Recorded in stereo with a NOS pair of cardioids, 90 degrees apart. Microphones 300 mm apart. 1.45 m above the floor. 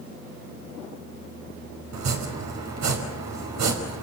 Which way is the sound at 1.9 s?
65° right.